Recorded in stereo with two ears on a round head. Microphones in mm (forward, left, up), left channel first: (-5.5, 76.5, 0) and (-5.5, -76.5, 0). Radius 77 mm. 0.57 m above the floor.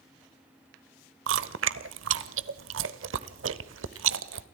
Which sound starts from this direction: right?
Chewing, at 1.3 s.